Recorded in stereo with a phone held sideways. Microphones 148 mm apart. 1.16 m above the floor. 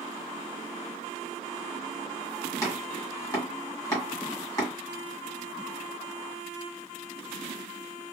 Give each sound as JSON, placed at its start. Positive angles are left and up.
{"t": 2.6, "sound": "chopping", "side_deg": 25, "distance_m": 1.5}